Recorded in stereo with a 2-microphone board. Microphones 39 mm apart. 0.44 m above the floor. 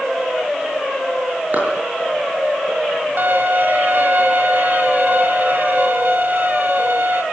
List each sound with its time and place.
1.5 s a clap: 45° right (ahead or behind), 7.5 m
3.2 s a violin: 50° right (ahead or behind), 2 m